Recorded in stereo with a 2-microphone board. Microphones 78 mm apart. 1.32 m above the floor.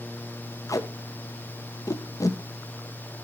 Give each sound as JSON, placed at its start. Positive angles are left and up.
{"t": 0.7, "sound": "tape being pulled", "side_deg": 45, "distance_m": 0.9}